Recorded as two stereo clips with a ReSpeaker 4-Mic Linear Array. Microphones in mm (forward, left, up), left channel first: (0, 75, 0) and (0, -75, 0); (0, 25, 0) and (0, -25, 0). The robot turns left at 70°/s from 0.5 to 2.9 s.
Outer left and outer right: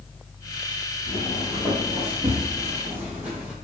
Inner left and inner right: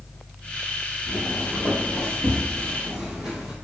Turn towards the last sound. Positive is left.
turn(degrees=-10)  # may be behind; listen again after turning